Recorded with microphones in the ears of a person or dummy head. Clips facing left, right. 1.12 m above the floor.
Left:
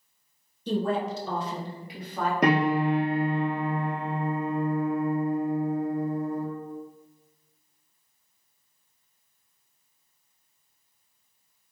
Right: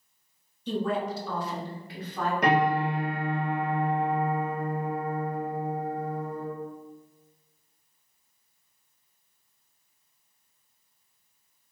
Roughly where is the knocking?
I don't hear knocking.